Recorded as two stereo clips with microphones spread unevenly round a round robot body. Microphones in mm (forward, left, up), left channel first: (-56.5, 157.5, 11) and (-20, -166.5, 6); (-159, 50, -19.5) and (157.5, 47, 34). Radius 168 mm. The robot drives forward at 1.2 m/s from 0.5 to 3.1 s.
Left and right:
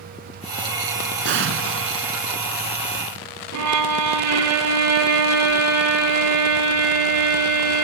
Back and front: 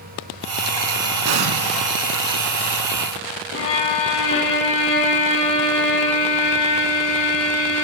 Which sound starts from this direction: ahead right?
An explosion, at 1.2 s.